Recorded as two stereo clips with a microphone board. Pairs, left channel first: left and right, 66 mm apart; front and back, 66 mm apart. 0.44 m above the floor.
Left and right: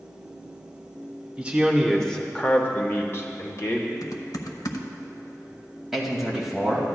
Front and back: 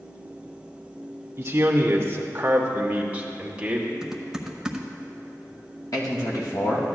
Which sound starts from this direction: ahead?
A man speaking, at 5.9 s.